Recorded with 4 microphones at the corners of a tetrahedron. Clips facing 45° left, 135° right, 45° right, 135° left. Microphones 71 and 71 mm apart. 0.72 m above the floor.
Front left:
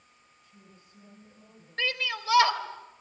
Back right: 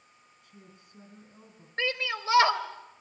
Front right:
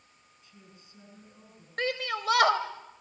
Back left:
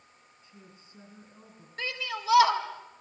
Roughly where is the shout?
Right.